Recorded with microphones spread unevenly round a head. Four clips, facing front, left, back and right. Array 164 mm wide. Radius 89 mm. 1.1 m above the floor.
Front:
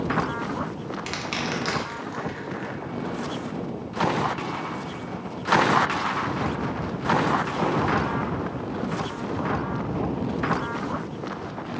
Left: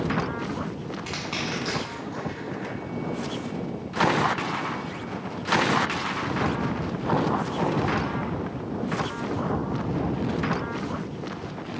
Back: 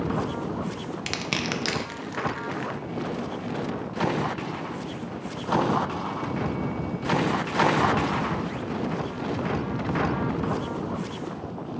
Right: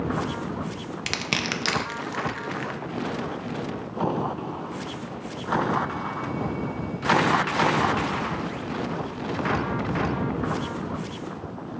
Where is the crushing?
115° right, 0.6 m.